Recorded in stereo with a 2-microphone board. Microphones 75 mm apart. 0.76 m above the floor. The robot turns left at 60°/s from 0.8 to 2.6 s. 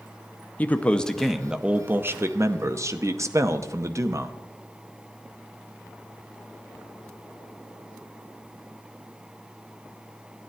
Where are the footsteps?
No footsteps in this recording.